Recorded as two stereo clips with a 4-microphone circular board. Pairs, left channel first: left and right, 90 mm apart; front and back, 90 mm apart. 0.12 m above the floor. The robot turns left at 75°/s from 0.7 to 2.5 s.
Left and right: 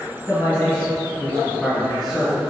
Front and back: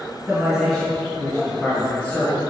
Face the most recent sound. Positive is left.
turn(degrees=-35)